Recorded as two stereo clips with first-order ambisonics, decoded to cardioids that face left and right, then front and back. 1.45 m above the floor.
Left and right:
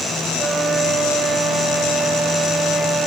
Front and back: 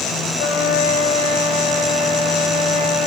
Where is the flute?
10° right, 3.5 m.